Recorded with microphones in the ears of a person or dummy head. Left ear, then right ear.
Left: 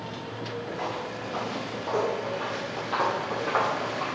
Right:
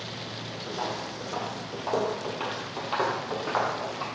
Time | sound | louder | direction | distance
0.7 | footsteps | right 2 dB | 50° right (ahead or behind) | 2.5 m